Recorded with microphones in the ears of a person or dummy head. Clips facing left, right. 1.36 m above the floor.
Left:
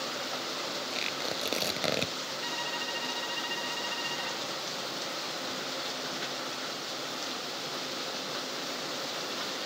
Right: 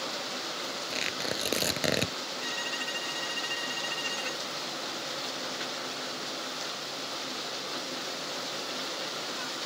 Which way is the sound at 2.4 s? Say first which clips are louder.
Even; 35° right (ahead or behind).